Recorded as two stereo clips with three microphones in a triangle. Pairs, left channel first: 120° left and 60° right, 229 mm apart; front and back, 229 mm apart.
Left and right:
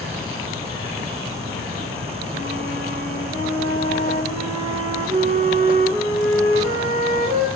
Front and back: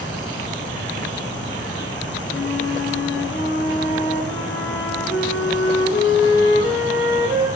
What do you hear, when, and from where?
2.3 s a flute: 5° right, 1.0 m